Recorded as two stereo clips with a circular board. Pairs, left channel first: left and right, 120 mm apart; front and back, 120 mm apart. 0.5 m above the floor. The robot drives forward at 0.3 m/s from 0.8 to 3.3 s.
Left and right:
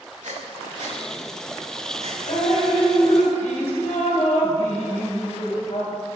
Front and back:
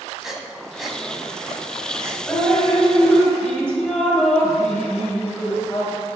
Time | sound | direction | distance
0.2 | breathing | 95° right | 1.0 m
2.3 | dripping | 70° left | 1.7 m